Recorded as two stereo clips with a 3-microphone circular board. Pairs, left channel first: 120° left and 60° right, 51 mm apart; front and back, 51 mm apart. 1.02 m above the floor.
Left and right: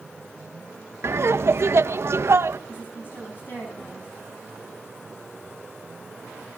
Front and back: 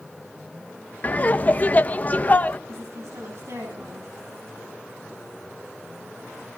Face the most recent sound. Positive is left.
turn(degrees=165)